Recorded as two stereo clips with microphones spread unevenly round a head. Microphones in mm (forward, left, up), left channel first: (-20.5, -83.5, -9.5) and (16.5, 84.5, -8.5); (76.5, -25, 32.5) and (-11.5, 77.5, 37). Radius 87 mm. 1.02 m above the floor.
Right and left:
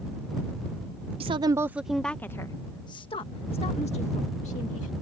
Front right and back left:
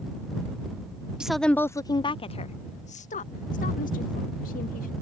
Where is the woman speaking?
50° left; by 4.9 s 55° right.